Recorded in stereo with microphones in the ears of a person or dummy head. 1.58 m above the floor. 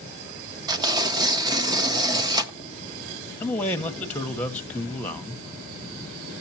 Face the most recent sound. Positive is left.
turn(degrees=10)  # may be behind; listen again after turning